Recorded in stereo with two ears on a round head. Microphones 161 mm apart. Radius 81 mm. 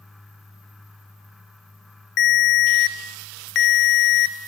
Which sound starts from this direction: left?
A ringtone, at 2.2 s.